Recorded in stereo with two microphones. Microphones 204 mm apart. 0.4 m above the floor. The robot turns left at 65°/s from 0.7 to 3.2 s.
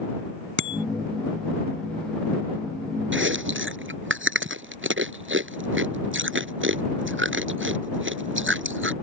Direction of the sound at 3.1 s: 70° right (ahead or behind).